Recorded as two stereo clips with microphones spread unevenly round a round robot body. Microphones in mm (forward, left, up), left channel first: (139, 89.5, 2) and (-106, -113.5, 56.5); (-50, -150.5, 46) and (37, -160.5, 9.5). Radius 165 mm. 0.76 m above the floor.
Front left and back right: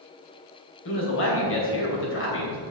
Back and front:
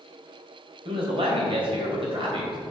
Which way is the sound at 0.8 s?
10° right.